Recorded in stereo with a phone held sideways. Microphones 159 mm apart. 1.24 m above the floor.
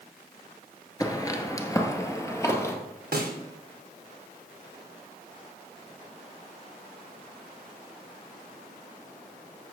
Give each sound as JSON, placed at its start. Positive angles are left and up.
{"t": 1.0, "sound": "footsteps", "side_deg": 20, "distance_m": 1.4}
{"t": 3.1, "sound": "a snare drum", "side_deg": -75, "distance_m": 1.4}